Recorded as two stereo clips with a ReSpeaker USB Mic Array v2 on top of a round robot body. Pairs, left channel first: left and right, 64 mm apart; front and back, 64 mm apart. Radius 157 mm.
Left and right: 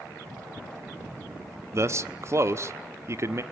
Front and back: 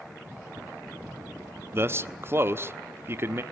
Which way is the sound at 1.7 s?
130° right.